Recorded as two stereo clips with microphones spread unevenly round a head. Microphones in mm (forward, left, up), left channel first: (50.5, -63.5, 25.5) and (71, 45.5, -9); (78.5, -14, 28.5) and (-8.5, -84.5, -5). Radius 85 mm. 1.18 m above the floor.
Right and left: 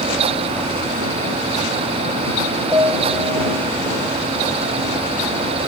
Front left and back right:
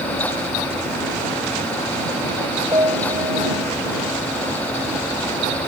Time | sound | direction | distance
2.7 | a piano | 150° left | ?